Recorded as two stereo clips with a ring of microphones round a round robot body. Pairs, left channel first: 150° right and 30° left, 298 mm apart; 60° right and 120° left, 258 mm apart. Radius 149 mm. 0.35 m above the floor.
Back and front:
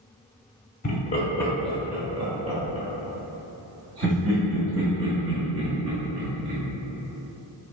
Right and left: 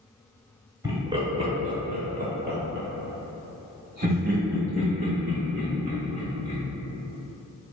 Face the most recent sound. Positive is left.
turn(degrees=65)